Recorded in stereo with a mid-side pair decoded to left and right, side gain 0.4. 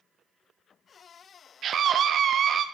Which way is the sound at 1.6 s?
65° right.